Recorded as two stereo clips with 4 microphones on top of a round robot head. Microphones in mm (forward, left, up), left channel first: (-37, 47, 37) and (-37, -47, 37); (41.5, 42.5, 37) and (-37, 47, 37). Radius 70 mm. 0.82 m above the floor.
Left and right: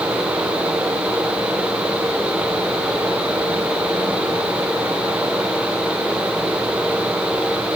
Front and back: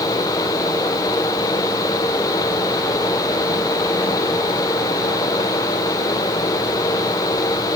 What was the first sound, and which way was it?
Only background noise.